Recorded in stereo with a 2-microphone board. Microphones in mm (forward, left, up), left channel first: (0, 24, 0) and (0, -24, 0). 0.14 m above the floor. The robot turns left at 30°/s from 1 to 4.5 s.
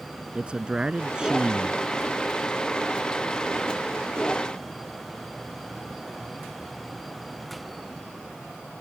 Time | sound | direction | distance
0.3 | a man speaking | 20° right (ahead or behind) | ?